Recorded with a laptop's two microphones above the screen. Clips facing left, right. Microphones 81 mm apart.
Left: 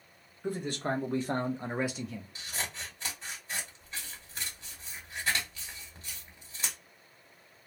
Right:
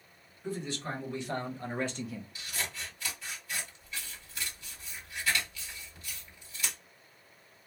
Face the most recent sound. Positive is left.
turn(degrees=35)  # may be behind; listen again after turning